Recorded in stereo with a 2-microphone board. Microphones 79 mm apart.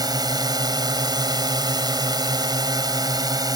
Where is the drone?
60° right (ahead or behind); by 3.6 s 55° right (ahead or behind).